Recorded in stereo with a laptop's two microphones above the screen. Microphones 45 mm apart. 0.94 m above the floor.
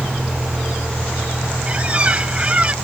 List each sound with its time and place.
0.0 s a vehicle: 50° right (ahead or behind); by 2.8 s 75° right (ahead or behind)
1.7 s a squeak: 30° right (ahead or behind)